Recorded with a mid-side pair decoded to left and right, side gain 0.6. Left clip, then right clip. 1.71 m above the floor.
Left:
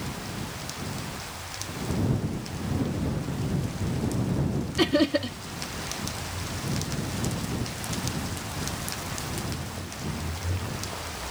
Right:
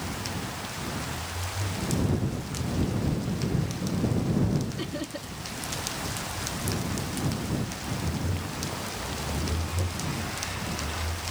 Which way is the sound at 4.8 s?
60° left.